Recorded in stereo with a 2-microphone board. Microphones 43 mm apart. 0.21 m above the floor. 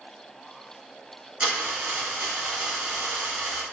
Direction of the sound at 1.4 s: 30° right (ahead or behind).